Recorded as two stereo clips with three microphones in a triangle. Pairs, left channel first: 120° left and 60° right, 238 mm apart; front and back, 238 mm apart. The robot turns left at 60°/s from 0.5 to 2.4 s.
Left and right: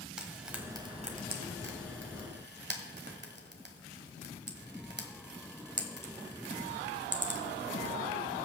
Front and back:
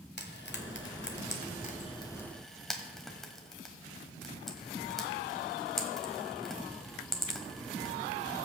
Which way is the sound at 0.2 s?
25° left.